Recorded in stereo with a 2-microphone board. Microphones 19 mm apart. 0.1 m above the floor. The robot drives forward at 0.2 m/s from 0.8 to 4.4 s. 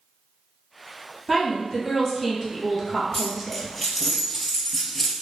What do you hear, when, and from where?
1.3 s a woman speaking: 5° left (ahead or behind), 1.5 m
3.1 s a dropped coin: 10° left (ahead or behind), 0.7 m